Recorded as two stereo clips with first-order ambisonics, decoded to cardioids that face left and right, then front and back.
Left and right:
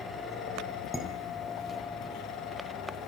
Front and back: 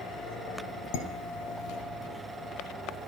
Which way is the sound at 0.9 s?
10° left.